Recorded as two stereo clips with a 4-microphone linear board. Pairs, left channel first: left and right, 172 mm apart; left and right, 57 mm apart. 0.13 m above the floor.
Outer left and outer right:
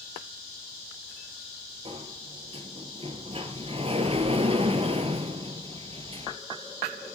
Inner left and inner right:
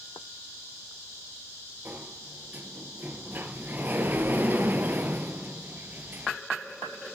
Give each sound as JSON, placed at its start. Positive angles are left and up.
{"t": 1.9, "sound": "a sliding door", "side_deg": -35, "distance_m": 1.3}